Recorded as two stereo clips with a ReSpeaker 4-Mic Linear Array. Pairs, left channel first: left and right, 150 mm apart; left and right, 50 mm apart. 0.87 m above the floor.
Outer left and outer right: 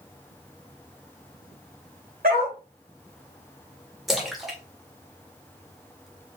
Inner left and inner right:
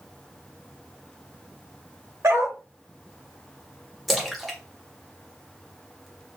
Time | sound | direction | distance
2.2 | a dog barking | 70° right (ahead or behind) | 1.3 m
4.1 | a splash | centre (ahead or behind) | 0.7 m